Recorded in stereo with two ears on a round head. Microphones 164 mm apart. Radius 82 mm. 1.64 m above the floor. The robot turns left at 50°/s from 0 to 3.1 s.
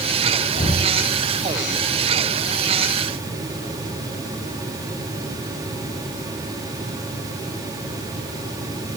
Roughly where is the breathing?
Left.